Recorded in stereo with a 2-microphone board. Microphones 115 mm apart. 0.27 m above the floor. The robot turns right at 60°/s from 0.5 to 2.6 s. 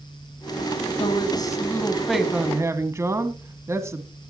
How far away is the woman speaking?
About 2 m.